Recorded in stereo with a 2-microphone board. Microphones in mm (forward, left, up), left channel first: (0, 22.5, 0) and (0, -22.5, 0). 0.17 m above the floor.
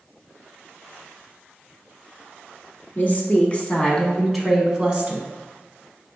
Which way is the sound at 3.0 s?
40° left (ahead or behind).